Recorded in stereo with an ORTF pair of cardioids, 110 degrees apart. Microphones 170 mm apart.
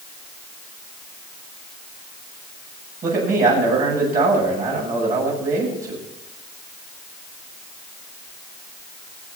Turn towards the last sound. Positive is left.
turn(degrees=-50)